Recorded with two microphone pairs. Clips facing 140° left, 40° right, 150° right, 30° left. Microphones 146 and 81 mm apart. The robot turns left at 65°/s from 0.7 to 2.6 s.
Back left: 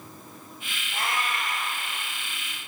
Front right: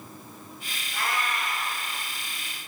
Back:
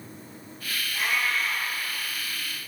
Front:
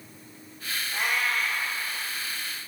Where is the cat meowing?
85° left, 2.5 m; by 1.7 s 30° left, 2.5 m.